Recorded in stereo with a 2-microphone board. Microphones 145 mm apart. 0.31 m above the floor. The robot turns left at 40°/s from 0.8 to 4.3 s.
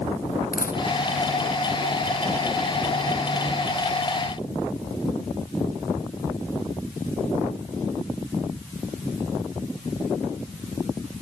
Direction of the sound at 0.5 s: 80° left.